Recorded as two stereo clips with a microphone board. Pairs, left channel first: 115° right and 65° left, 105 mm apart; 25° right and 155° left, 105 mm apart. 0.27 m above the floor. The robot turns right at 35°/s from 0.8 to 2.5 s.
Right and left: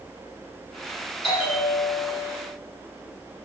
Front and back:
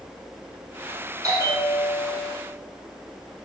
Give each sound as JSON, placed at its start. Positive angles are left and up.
{"t": 1.2, "sound": "a bell", "azimuth_deg": -150, "distance_m": 8.0}